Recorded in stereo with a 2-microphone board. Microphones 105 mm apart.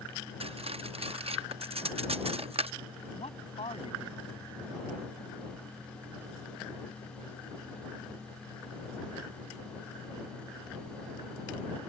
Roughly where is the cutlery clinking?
Right.